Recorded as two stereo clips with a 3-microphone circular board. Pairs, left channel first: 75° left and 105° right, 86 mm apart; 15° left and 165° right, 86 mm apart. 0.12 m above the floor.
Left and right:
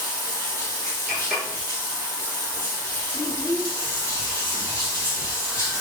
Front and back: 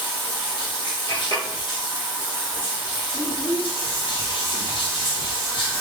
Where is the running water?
15° left, 1.6 m.